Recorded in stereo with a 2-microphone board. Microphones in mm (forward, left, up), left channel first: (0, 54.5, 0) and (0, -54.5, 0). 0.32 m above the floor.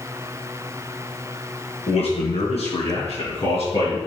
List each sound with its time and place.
1.9 s a man speaking: 75° left (ahead or behind), 4 m; by 4.0 s 65° left (ahead or behind), 5 m